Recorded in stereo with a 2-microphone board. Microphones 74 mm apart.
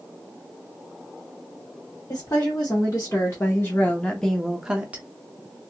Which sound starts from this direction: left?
A woman speaking, at 2.1 s.